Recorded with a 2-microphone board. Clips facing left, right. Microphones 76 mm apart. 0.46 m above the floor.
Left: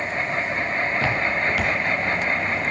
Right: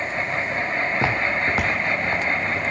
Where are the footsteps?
20° right (ahead or behind), 2.5 m; by 2.6 s 40° right (ahead or behind), 3.5 m.